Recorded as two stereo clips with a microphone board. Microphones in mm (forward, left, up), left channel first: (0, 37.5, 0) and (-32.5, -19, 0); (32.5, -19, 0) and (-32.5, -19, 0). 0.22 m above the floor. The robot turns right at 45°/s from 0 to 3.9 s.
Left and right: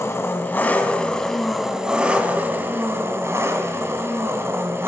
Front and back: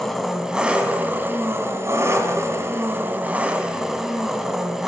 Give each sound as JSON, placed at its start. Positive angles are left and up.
{"t": 0.0, "sound": "an engine running", "azimuth_deg": 85, "distance_m": 1.5}